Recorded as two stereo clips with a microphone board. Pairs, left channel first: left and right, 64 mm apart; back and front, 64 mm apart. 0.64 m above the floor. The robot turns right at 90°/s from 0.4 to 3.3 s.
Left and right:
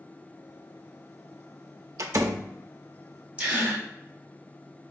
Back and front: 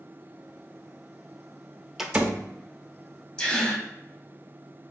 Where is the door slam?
80° right, 0.5 m; by 2.5 s 40° right, 0.5 m.